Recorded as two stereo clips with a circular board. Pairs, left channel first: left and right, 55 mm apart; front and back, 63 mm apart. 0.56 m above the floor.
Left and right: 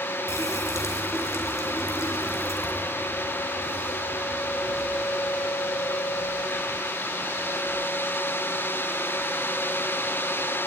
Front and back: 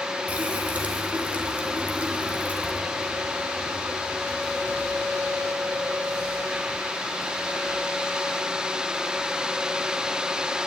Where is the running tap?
115° left, 3.5 m.